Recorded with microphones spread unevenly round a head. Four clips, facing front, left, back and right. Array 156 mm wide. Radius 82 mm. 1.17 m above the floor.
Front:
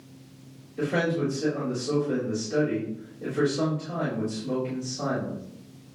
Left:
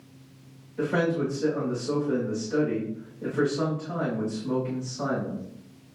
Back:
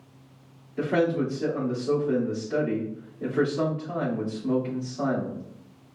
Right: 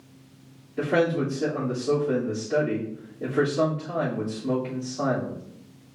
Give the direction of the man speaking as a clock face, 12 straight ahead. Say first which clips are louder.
Right 2 dB, back 2 dB; 4 o'clock.